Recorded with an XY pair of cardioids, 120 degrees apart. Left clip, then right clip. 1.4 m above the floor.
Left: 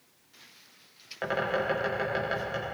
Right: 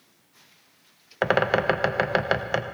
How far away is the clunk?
I don't hear a clunk.